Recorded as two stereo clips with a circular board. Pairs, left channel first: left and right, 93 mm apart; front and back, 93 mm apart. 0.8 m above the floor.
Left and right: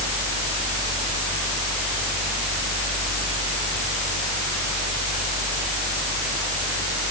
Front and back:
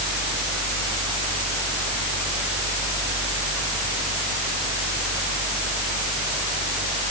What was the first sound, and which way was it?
Only background noise.